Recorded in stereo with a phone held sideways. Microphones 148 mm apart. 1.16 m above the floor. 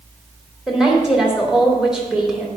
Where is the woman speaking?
5° right (ahead or behind), 2.5 m.